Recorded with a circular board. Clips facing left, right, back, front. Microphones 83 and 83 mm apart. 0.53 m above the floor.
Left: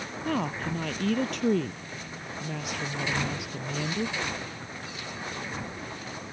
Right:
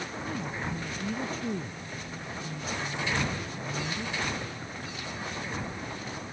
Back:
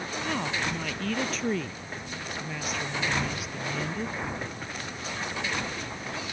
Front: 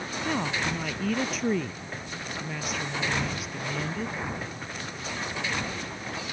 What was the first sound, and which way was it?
A woman speaking, 80° left.